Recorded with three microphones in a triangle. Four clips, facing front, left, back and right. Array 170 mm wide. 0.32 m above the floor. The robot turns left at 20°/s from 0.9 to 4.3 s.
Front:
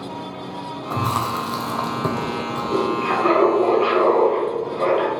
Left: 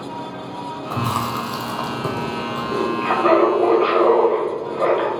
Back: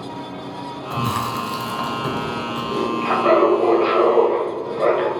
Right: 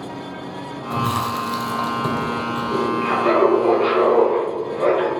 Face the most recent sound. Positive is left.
turn(degrees=95)